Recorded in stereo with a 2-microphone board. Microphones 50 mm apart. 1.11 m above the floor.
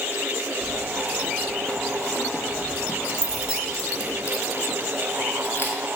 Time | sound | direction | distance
0.6 | keys jangling | 5° left (ahead or behind) | 2 m